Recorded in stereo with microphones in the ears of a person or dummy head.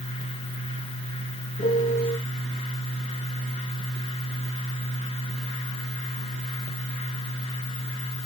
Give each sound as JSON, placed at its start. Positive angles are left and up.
{"t": 1.6, "sound": "a piano", "side_deg": 45, "distance_m": 1.4}